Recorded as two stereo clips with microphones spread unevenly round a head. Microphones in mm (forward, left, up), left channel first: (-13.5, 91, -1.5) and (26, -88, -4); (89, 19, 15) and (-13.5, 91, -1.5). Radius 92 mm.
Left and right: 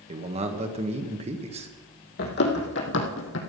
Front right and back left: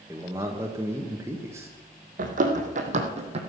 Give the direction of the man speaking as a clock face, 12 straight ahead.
5 o'clock.